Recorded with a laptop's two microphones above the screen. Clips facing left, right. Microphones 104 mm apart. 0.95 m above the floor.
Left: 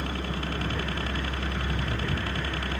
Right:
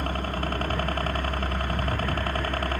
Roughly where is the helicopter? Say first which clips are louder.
Right 3 dB; right.